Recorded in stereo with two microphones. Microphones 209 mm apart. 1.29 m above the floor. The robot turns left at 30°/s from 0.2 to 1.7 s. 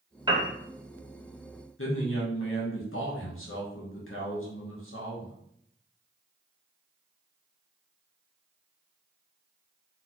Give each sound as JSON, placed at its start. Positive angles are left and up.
{"t": 0.3, "sound": "a piano", "side_deg": -20, "distance_m": 0.7}
{"t": 1.8, "sound": "a man speaking", "side_deg": 80, "distance_m": 0.9}